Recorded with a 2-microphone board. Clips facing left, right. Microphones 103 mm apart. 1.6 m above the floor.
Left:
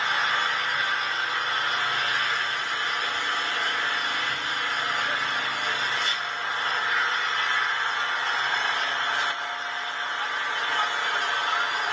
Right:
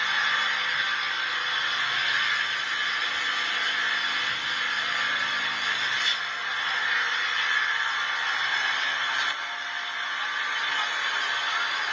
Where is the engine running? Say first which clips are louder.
Left 2 dB; 35° left (ahead or behind), 3.5 m.